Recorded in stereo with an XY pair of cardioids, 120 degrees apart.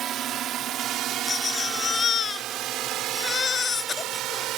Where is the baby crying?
35° left.